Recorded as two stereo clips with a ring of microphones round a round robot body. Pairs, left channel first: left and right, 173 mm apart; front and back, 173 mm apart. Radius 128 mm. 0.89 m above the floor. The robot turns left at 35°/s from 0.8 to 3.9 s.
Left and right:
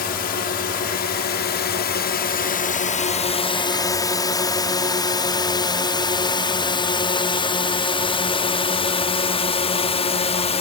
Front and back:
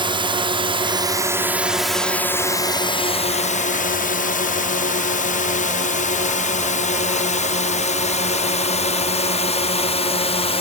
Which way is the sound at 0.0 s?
125° left.